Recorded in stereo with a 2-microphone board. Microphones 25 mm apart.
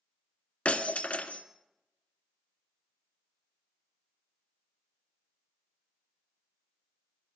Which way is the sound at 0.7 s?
60° left (ahead or behind).